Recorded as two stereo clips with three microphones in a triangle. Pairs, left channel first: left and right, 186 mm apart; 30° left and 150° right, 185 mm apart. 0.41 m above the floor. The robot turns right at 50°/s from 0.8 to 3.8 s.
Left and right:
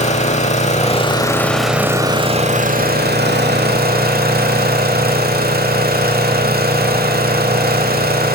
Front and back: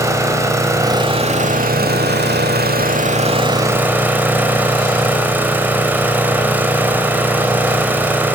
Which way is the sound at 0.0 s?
140° left.